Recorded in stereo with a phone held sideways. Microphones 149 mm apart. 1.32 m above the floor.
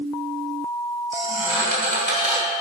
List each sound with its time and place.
1.1 s a squeak: 65° right (ahead or behind), 2.5 m